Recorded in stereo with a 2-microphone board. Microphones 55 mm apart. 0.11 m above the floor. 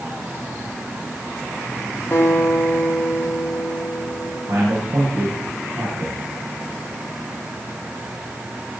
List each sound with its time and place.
2.1 s a guitar: 50° left (ahead or behind), 4 m
4.5 s a man speaking: 55° right (ahead or behind), 7.5 m